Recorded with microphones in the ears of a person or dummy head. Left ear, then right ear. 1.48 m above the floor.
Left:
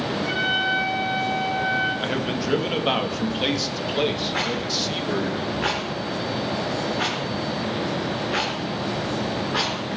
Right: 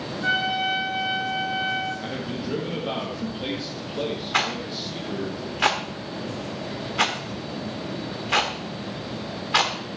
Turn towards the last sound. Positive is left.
turn(degrees=-25)  # may be behind; listen again after turning